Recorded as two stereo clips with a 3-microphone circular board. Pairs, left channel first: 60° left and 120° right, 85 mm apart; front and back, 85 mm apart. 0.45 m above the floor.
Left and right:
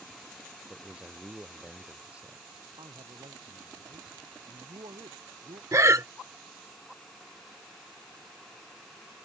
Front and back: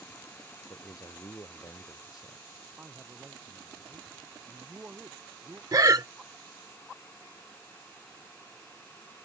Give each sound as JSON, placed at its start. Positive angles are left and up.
{"t": 0.7, "sound": "a man speaking", "azimuth_deg": -45}
{"t": 2.8, "sound": "a man speaking", "azimuth_deg": -115}
{"t": 5.7, "sound": "breathing", "azimuth_deg": -160}